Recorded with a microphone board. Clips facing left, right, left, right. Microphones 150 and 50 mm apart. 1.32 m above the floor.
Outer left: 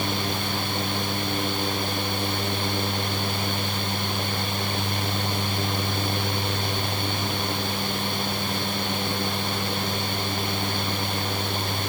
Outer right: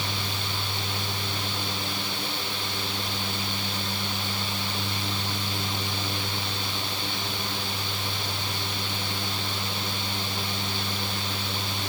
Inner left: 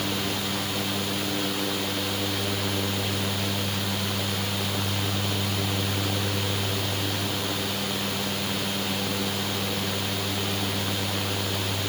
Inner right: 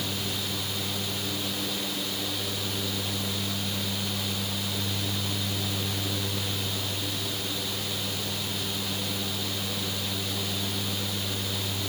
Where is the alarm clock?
No alarm clock in this recording.